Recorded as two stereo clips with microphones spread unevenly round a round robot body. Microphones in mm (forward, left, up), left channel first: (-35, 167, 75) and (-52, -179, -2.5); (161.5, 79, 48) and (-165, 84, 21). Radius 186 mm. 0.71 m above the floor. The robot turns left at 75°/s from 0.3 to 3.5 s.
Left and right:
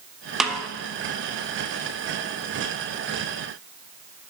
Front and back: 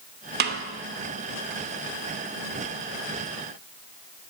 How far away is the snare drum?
About 0.7 m.